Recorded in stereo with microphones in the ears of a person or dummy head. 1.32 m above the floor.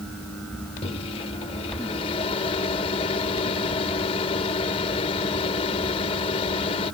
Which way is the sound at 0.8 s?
30° left (ahead or behind).